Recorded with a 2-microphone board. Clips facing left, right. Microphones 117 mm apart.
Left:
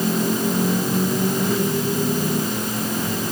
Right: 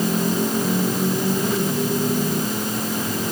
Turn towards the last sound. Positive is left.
No sound to turn to.